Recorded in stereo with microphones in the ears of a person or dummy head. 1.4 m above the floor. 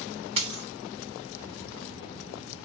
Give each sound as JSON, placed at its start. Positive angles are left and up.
{"t": 0.4, "sound": "a dropped coin", "side_deg": -30, "distance_m": 1.3}